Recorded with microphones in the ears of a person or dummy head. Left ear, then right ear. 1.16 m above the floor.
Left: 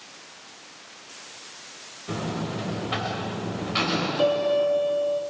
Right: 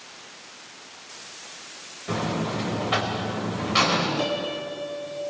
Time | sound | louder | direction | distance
2.1 | a buzzer | right 4 dB | 10° right (ahead or behind) | 4 m
4.2 | a piano | left 6 dB | 30° left (ahead or behind) | 2.5 m